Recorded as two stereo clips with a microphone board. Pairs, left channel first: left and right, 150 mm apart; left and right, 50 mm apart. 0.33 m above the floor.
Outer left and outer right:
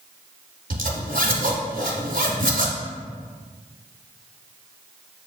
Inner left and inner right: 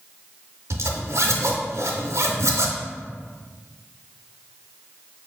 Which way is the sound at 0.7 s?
75° right (ahead or behind).